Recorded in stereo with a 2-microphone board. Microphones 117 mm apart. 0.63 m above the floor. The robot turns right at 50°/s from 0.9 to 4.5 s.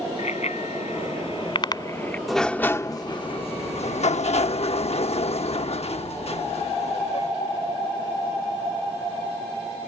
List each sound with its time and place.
0.2 s a bicycle bell: 75° left (ahead or behind); by 2.2 s 15° left (ahead or behind)
2.3 s a sliding door: straight ahead; by 7.3 s 110° left